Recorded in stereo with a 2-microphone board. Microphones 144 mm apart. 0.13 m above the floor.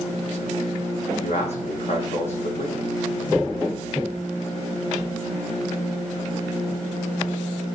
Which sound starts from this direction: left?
A man speaking, at 1.1 s.